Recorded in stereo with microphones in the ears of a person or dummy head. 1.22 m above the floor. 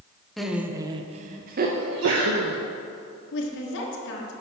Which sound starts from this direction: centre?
Laughter, at 0.4 s.